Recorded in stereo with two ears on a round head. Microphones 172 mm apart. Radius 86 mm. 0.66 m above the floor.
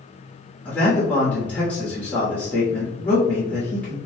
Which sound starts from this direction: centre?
A man speaking, at 0.7 s.